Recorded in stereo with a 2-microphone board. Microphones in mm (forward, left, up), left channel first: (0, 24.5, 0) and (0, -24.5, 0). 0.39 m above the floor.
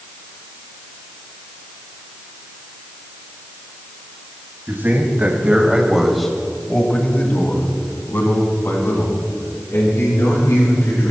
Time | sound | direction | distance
4.7 | a man speaking | 45° right (ahead or behind) | 3.5 m